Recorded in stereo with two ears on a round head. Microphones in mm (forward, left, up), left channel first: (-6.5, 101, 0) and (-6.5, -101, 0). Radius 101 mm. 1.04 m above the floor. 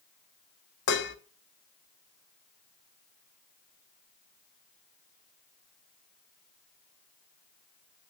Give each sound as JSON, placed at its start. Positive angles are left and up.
{"t": 0.9, "sound": "dishes clattering", "side_deg": 55, "distance_m": 1.0}